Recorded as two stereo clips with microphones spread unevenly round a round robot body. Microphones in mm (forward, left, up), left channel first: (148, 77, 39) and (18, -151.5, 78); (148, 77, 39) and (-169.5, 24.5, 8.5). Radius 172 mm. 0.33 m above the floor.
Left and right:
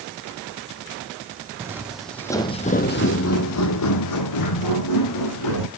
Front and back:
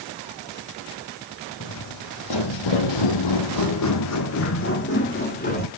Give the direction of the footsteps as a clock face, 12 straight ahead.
1 o'clock.